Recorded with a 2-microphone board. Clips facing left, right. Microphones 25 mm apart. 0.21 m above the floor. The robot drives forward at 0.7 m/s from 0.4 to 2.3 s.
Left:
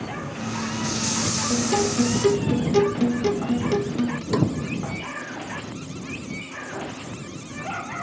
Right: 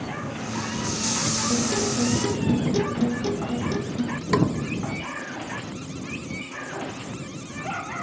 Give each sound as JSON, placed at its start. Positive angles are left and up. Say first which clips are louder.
{"t": 1.5, "sound": "a guitar", "louder": "left 4 dB", "side_deg": 55}
{"t": 4.3, "sound": "a snare drum", "louder": "right 2 dB", "side_deg": -30}